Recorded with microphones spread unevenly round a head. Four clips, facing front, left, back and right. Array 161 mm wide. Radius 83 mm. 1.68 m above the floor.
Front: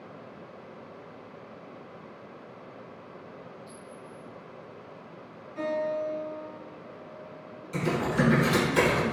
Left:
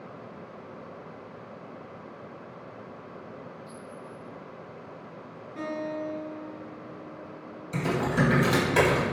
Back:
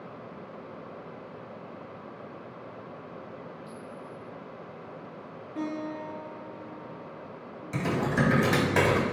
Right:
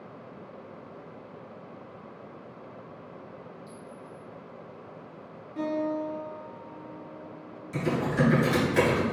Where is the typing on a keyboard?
135° left, 3.5 m.